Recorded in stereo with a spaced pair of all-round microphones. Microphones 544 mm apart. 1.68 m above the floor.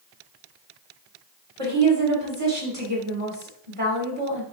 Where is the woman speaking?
80° right, 2.5 m.